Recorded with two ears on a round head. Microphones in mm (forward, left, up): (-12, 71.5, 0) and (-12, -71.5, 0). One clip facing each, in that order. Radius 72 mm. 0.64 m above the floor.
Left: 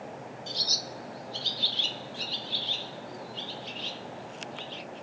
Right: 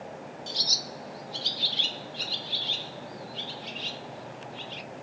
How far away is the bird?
About 0.7 m.